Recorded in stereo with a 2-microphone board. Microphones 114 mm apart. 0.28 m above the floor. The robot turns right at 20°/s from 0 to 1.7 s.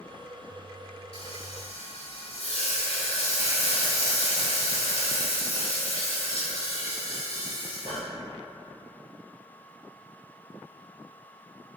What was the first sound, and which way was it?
Frying, 60° left (ahead or behind).